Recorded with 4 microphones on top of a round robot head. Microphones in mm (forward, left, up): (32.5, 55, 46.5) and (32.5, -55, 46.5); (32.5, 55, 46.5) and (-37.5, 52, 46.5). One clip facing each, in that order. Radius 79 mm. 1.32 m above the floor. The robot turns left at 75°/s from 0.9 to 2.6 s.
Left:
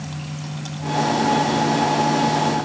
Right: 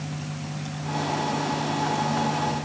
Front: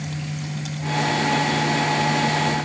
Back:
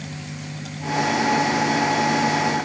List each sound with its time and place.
Only background noise.